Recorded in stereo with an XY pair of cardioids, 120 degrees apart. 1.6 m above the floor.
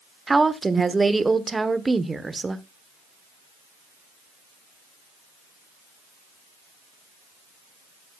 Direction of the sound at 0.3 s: 15° right.